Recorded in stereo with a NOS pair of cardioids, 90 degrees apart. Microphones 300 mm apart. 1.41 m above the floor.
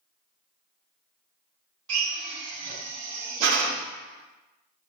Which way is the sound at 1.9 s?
60° right.